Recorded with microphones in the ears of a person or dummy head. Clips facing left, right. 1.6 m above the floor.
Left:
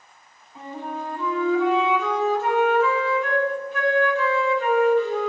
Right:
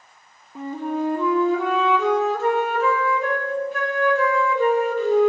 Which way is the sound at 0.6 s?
45° right (ahead or behind).